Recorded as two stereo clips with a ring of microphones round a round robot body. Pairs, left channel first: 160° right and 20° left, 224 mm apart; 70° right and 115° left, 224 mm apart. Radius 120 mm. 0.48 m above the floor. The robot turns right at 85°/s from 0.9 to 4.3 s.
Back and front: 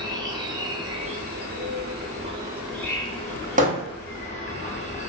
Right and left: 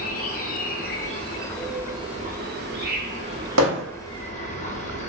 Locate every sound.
0.0 s an insect: 40° right, 0.7 m; by 5.1 s 110° right, 0.7 m
3.6 s hammering: 80° left, 1.0 m; by 3.8 s 100° left, 1.0 m